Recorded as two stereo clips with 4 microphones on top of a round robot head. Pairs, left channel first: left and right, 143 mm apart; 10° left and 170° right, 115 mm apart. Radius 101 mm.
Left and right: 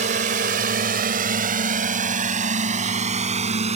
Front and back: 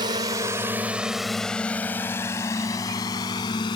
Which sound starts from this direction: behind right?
A drone, at 0.0 s.